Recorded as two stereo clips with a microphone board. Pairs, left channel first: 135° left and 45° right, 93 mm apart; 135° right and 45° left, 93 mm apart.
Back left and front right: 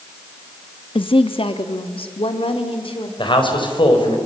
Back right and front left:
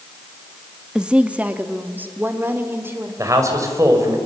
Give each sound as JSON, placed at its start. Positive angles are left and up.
{"t": 0.9, "sound": "a woman speaking", "azimuth_deg": 125, "distance_m": 0.9}
{"t": 3.2, "sound": "a man speaking", "azimuth_deg": 100, "distance_m": 4.5}